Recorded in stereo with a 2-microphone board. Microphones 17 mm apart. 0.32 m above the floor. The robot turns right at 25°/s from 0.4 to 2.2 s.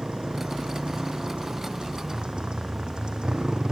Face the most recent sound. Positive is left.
turn(degrees=-65)